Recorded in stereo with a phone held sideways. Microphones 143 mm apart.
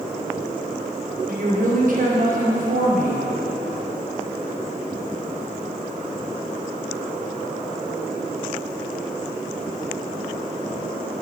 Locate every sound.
1.3 s a woman speaking: 60° right (ahead or behind), 1.3 m